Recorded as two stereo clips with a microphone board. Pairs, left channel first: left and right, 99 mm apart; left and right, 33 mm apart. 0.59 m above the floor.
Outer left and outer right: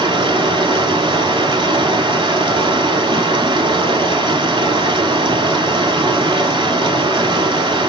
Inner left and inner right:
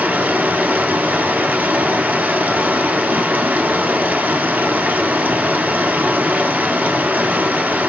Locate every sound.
0.0 s running water: 60° right (ahead or behind), 0.9 m